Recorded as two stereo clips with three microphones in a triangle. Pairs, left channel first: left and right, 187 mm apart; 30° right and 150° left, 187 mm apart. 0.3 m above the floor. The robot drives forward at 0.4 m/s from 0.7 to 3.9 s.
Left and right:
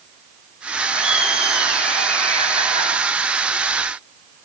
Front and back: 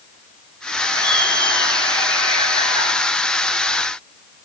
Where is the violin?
No violin in this recording.